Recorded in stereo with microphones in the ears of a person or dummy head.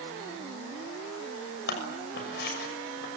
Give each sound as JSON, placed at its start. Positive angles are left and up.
{"t": 1.7, "sound": "scissors", "side_deg": 65, "distance_m": 6.5}